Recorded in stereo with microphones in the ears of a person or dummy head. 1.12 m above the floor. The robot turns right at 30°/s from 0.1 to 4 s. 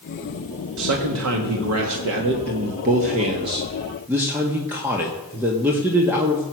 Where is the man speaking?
105° right, 1.6 m; by 6.4 s 10° right, 1.6 m.